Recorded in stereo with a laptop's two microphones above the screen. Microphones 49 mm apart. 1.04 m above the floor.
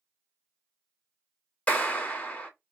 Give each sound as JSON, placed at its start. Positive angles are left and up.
{"t": 1.7, "sound": "a clap", "side_deg": 30, "distance_m": 1.6}